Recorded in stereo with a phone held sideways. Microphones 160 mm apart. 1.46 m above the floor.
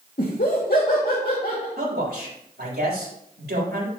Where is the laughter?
70° left (ahead or behind), 1.9 m.